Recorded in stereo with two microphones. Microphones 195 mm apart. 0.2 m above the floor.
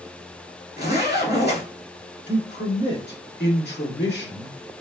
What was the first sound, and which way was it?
A zipper, 60° left (ahead or behind).